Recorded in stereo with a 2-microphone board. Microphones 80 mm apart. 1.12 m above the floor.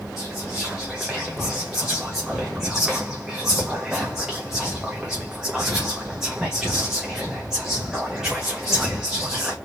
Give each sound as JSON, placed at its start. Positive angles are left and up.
{"t": 0.2, "sound": "whispering", "side_deg": -5, "distance_m": 1.4}